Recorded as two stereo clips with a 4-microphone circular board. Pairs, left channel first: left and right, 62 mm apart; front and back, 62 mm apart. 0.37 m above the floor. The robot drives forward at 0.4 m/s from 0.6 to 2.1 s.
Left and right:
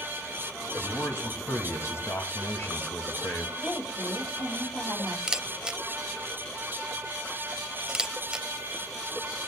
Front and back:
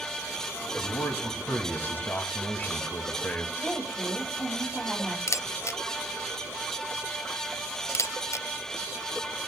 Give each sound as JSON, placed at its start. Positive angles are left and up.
{"t": 0.8, "sound": "a man speaking", "azimuth_deg": 45, "distance_m": 3.0}
{"t": 3.6, "sound": "a woman speaking", "azimuth_deg": 75, "distance_m": 9.0}
{"t": 5.3, "sound": "a camera shutter", "azimuth_deg": -15, "distance_m": 0.6}